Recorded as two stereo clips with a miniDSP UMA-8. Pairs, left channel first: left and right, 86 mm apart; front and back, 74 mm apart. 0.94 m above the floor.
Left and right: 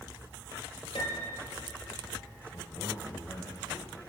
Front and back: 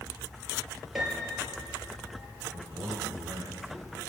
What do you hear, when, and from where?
0.9 s a piano: 95° left, 6 m
2.5 s a man speaking: 140° left, 5.5 m